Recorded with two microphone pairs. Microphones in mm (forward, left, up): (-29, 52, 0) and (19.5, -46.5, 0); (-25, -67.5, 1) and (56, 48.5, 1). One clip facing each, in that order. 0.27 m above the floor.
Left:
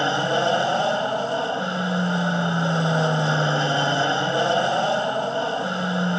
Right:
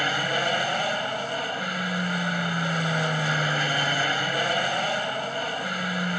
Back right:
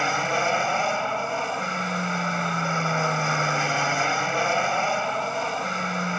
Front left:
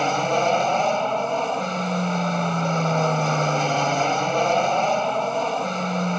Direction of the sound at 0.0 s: 95° left.